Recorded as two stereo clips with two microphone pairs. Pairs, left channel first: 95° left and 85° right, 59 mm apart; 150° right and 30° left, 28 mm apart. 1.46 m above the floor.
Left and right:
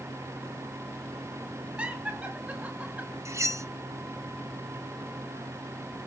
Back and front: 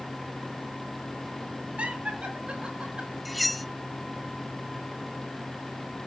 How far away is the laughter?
About 7 m.